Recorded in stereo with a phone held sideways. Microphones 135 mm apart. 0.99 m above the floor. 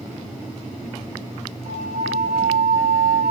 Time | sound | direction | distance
1.6 | a flute | 75° right (ahead or behind) | 6.5 m